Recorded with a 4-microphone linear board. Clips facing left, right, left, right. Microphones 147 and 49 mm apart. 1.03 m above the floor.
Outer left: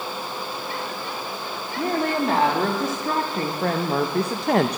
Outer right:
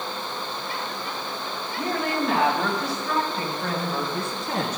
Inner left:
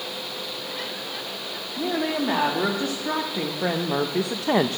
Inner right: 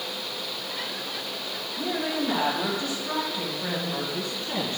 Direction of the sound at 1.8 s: 40° left (ahead or behind).